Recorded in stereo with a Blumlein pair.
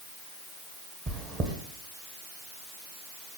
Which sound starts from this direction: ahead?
Chewing, at 1.1 s.